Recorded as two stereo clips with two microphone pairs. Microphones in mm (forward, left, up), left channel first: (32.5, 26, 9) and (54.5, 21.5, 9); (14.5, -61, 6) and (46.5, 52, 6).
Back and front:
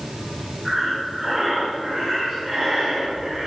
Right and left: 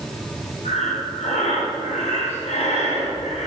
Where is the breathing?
85° right, 3.5 m.